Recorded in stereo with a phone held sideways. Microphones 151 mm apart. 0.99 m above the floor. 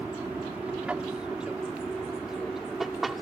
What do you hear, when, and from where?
0.0 s an aircraft: 10° right (ahead or behind); by 3.2 s centre (ahead or behind)